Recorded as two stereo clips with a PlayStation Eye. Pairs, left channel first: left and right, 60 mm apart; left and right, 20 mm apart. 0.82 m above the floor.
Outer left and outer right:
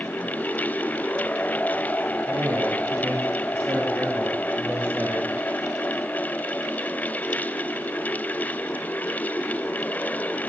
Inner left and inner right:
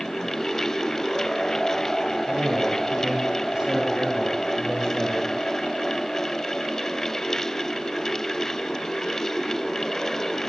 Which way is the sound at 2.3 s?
45° right (ahead or behind).